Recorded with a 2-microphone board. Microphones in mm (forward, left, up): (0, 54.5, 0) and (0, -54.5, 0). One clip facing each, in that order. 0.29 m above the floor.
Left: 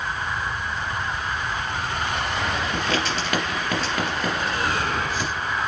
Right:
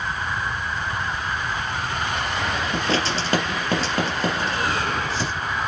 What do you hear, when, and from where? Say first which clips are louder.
2.7 s writing: right 2 dB; 30° right (ahead or behind), 3 m